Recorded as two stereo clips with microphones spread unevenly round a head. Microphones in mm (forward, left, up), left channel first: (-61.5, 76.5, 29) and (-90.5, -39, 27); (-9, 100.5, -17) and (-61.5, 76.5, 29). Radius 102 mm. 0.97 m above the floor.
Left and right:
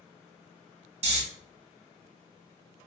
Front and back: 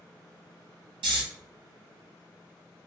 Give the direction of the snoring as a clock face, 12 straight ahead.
4 o'clock.